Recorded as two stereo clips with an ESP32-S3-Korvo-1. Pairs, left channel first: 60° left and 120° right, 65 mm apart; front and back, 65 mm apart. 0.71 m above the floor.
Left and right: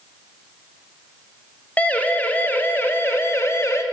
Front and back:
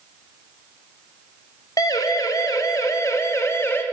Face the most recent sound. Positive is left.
turn(degrees=40)